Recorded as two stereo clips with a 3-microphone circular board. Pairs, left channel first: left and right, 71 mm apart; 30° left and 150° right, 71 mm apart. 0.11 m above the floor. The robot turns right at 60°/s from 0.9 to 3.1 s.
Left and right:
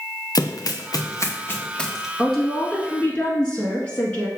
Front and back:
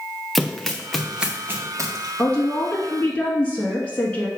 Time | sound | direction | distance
0.3 | running footsteps | 120° left | 0.6 m
2.2 | a woman speaking | 5° left | 1.2 m